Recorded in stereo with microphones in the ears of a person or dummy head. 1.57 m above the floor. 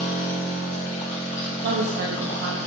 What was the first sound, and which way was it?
A machine running, 35° left (ahead or behind).